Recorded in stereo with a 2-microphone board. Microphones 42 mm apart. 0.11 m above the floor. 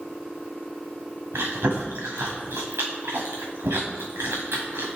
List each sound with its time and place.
1.3 s chewing: 85° right, 2 m